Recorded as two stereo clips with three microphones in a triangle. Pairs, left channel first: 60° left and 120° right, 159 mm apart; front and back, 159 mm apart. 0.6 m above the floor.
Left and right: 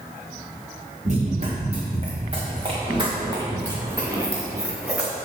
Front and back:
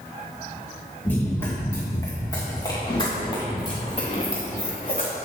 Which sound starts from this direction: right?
Running footsteps, at 1.1 s.